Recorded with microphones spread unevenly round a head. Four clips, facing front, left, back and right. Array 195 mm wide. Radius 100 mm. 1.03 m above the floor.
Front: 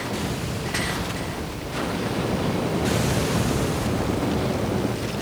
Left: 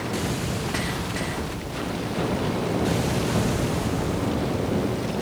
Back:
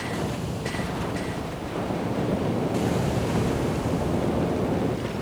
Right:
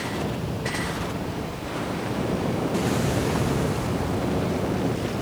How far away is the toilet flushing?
No toilet flushing in this recording.